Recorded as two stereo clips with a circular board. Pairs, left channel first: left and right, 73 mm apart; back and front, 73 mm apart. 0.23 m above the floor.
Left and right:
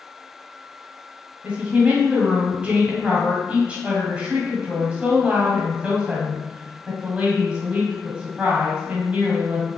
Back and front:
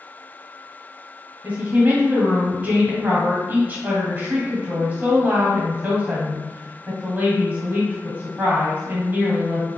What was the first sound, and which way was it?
A woman speaking, 35° right.